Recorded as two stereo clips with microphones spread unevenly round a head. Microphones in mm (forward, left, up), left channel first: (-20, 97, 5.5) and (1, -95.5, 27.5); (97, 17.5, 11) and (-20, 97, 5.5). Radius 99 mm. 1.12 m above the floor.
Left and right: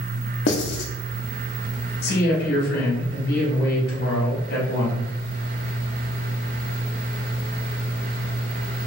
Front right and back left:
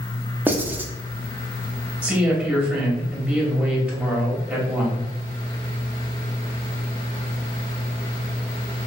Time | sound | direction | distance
0.5 | writing | 70° left | 0.9 m
2.0 | a man speaking | 65° left | 2.5 m